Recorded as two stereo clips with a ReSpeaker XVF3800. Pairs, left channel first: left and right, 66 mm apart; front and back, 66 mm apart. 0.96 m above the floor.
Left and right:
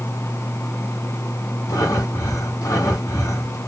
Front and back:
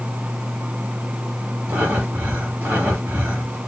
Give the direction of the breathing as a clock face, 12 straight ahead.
8 o'clock.